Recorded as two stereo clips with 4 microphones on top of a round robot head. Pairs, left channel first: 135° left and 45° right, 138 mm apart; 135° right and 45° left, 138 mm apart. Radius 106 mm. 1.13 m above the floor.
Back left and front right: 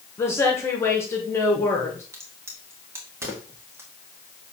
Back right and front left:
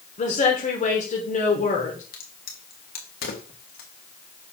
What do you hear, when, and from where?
0.2 s a woman speaking: 155° right, 1.4 m
2.1 s a crack: 120° right, 1.5 m